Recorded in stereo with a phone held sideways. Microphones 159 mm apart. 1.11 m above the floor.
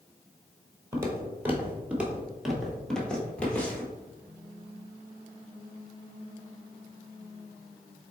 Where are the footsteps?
15° right (ahead or behind), 1.2 m; by 3.9 s 10° left (ahead or behind), 1.5 m.